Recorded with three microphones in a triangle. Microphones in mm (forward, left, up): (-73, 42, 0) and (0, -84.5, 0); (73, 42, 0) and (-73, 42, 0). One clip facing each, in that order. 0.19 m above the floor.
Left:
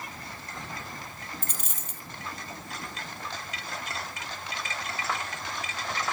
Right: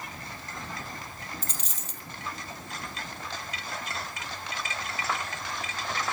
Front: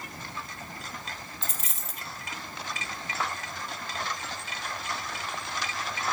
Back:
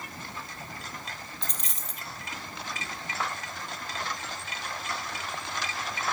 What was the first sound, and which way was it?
A dropped coin, 85° left.